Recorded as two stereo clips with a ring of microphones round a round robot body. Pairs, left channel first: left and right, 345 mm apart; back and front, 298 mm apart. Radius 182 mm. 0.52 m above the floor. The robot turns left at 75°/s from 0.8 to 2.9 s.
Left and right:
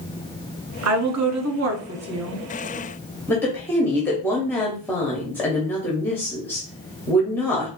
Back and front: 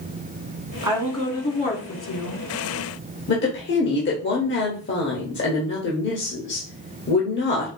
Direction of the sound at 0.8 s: 65° right.